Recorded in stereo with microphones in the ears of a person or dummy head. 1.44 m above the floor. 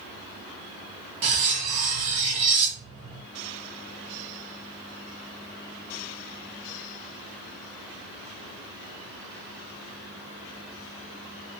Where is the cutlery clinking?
45° right (ahead or behind), 0.8 m.